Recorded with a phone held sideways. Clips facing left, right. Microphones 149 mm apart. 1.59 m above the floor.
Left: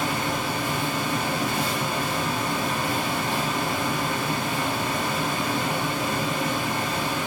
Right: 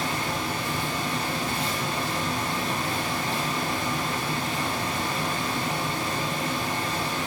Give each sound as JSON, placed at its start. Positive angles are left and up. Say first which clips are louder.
{"t": 0.0, "sound": "a fan", "louder": "left 3 dB", "side_deg": 85, "distance_m": 5.0}